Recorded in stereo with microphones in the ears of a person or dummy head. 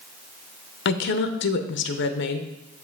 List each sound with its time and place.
0.8 s a woman speaking: 65° left (ahead or behind), 0.7 m